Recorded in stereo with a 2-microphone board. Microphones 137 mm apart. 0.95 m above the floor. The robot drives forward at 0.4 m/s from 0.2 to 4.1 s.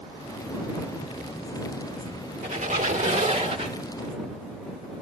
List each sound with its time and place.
2.4 s a squeak: 70° right (ahead or behind), 1.1 m; by 3.8 s 50° right (ahead or behind), 1.4 m